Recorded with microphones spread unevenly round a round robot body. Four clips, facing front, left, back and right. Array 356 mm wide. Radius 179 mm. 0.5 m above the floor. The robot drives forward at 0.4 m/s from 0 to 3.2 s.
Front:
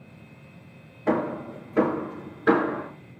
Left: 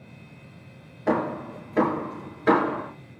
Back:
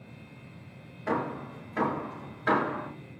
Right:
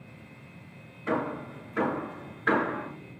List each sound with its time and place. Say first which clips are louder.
1.1 s hammering: left 5 dB, front 6 dB; 35° left, 6 m; by 2.9 s 40° left, 5.5 m